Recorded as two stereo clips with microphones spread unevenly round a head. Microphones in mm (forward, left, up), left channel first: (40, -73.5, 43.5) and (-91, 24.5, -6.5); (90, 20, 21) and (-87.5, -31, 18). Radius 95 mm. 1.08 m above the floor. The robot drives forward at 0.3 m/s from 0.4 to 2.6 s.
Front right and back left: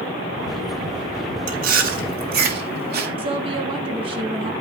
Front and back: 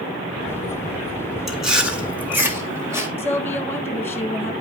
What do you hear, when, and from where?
1.5 s chewing: 105° left, 1.4 m; by 3.1 s 120° left, 1.5 m
3.2 s a woman speaking: 95° left, 1.4 m